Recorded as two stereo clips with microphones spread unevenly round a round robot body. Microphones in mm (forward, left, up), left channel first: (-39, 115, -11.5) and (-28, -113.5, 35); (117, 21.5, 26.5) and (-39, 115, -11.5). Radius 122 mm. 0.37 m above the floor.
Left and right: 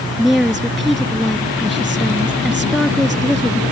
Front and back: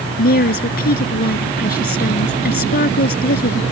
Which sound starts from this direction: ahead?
A woman speaking, at 0.2 s.